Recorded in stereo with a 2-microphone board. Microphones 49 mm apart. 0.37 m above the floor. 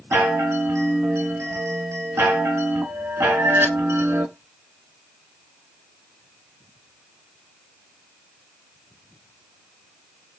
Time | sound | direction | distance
0.1 | a chime | 65° right (ahead or behind) | 0.7 m